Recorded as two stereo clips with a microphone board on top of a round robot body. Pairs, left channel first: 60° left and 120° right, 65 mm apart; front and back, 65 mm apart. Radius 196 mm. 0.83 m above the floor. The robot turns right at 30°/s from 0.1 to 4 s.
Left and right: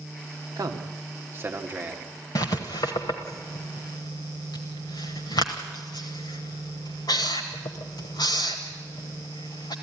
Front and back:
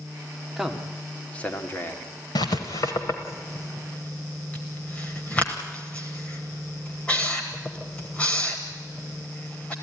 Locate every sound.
0.6 s a man speaking: 95° right, 2 m; by 2.1 s 50° right, 2 m
2.4 s writing: 25° left, 0.9 m; by 9.7 s 75° left, 0.9 m